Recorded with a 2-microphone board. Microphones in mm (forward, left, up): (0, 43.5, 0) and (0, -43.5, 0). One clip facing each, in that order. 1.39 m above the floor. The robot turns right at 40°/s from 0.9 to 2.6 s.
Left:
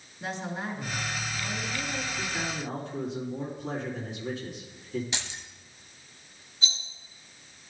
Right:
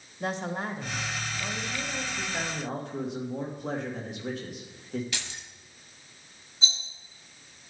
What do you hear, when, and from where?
0.2 s a woman speaking: 55° right, 1.3 m; by 2.1 s 5° right, 1.3 m
2.2 s a man speaking: 80° right, 1.7 m; by 5.0 s 65° right (ahead or behind), 1.7 m
5.1 s keys jangling: 20° left (ahead or behind), 0.8 m
6.6 s a rattle: 30° right (ahead or behind), 2.5 m